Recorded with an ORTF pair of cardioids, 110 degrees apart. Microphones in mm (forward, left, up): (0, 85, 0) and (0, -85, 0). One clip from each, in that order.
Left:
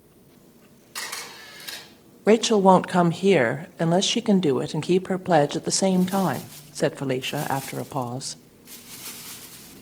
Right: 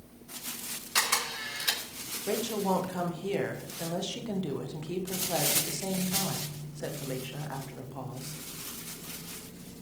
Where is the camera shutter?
50° right, 5 m.